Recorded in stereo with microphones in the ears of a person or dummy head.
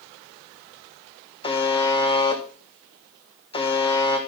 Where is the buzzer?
25° left (ahead or behind), 1.5 m.